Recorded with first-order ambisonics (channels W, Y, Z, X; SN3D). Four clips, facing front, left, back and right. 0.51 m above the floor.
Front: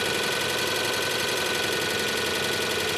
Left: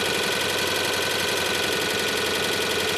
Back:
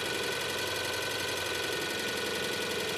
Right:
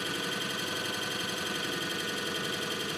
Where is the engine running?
65° left, 0.8 m.